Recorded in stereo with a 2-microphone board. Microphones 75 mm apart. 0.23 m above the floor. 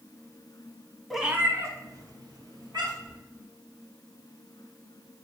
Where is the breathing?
No breathing in this recording.